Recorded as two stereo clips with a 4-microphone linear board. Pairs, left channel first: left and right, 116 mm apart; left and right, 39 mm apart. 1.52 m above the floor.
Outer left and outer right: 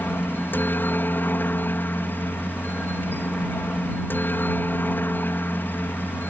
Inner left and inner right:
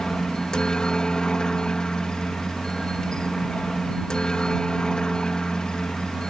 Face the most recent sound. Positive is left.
turn(degrees=15)  # may be behind; listen again after turning